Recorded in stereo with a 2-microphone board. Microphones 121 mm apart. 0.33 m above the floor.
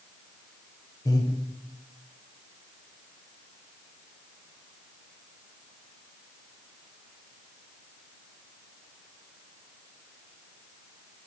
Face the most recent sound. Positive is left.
turn(degrees=30)  # may be behind; listen again after turning